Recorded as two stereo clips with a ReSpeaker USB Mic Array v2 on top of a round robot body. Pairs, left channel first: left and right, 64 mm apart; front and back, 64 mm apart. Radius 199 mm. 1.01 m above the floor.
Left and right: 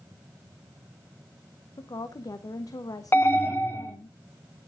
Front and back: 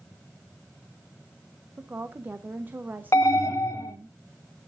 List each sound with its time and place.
1.8 s a woman speaking: 120° left, 0.7 m
3.1 s an alarm: 40° left, 1.8 m